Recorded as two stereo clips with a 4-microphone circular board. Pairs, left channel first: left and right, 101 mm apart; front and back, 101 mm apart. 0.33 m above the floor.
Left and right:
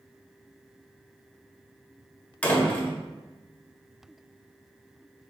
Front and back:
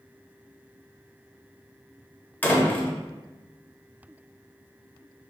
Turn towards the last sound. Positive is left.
turn(degrees=40)